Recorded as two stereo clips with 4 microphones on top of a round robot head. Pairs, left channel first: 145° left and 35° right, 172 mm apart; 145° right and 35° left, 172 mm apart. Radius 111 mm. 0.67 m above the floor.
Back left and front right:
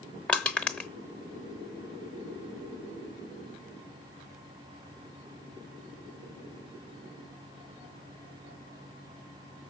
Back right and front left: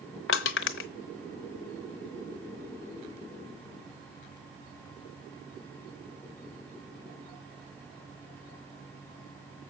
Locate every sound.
0.3 s crushing: 135° right, 0.7 m